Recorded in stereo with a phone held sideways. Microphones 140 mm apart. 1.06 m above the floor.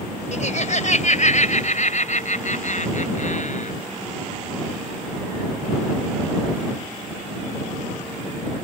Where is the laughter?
60° left (ahead or behind); by 3.7 s 65° left (ahead or behind).